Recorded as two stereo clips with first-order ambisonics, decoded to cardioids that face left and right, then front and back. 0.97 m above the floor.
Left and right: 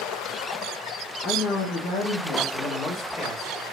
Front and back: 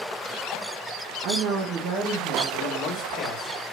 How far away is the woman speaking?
About 0.7 m.